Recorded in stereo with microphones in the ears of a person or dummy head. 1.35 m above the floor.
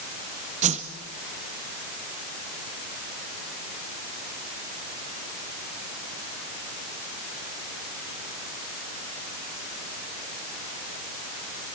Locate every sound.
0.6 s a whoosh: 35° right (ahead or behind), 0.9 m